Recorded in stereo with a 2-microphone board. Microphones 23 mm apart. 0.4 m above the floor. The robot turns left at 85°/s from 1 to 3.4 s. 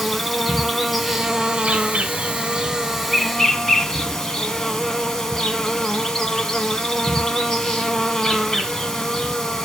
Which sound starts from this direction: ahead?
An insect, at 0.0 s.